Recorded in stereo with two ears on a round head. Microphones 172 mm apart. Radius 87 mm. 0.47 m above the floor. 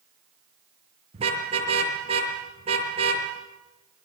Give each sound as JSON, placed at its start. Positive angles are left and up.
{"t": 1.1, "sound": "a car horn", "side_deg": -30, "distance_m": 6.0}